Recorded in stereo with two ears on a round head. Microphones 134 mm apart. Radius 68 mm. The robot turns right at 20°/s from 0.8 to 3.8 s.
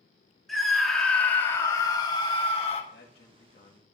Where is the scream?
Straight ahead, 1.6 m; by 2.8 s 40° left, 1.6 m.